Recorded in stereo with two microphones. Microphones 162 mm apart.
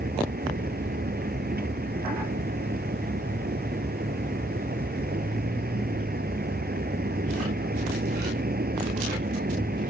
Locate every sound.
0.0 s a vehicle: 65° right (ahead or behind)